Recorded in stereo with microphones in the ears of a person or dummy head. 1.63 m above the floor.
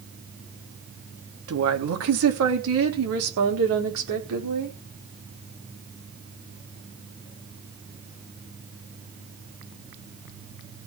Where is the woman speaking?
80° right, 3 m.